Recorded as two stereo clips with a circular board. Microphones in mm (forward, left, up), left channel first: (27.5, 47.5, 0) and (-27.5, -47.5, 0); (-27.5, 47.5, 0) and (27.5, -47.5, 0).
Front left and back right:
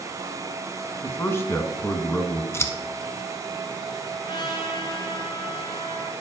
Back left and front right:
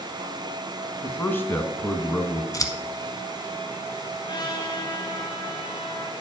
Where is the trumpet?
90° left, 1.6 m.